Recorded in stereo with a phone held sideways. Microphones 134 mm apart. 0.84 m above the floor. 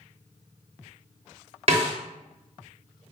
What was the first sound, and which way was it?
A snare drum, 50° right (ahead or behind).